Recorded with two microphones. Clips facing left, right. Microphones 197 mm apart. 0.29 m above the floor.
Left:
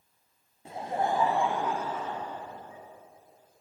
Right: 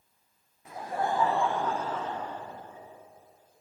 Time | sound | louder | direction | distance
0.7 | laughter | left 1 dB | 30° left (ahead or behind) | 1.1 m